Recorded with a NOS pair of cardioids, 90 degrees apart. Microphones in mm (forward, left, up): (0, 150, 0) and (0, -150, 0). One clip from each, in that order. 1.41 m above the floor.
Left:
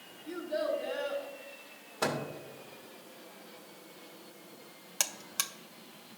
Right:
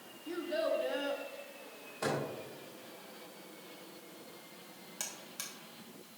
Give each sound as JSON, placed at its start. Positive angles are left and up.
{"t": 0.3, "sound": "a child speaking", "azimuth_deg": -10, "distance_m": 2.5}
{"t": 2.0, "sound": "a microwave", "azimuth_deg": 60, "distance_m": 1.6}
{"t": 5.0, "sound": "a buzzer", "azimuth_deg": 55, "distance_m": 0.6}